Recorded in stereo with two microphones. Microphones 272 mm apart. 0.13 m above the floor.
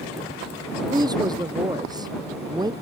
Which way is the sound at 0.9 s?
15° right (ahead or behind).